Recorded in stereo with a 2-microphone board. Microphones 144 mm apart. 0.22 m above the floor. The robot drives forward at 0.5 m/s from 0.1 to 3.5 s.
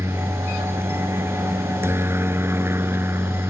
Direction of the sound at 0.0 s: 15° right (ahead or behind).